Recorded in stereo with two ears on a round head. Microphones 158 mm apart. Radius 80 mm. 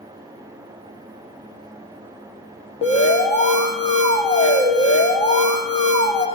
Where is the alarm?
35° left (ahead or behind), 1.6 m.